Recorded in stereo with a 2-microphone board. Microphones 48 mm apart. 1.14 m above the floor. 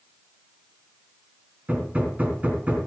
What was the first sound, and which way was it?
Hammering, 35° right (ahead or behind).